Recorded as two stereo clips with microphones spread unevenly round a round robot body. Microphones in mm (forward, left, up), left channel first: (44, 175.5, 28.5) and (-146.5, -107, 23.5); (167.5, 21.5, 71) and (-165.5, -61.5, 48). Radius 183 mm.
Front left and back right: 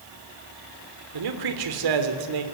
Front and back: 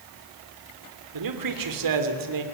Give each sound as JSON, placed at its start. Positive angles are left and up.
{"t": 1.1, "sound": "a man speaking", "azimuth_deg": -140, "distance_m": 3.0}